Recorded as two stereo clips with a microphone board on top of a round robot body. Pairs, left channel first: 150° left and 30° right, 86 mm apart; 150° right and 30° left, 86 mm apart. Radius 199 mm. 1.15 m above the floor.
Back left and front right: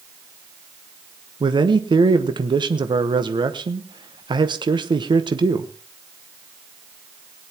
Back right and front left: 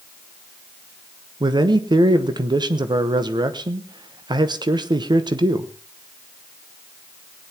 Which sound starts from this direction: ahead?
A man speaking, at 1.4 s.